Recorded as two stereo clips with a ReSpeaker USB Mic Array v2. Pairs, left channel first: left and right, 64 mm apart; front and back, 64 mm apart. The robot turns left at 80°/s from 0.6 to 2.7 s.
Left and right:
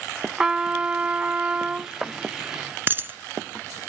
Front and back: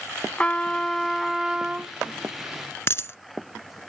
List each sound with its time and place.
0.4 s a trumpet: 40° right; by 1.9 s 145° right
2.9 s a dropped coin: 40° right